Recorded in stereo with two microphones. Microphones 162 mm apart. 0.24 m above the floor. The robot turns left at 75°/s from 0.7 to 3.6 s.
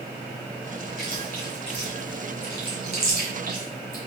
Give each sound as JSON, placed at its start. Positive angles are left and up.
{"t": 1.0, "sound": "chewing", "side_deg": 65, "distance_m": 1.7}